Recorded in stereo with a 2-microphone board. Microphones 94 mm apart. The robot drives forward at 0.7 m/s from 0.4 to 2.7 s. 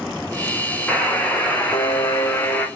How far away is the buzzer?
About 1.1 m.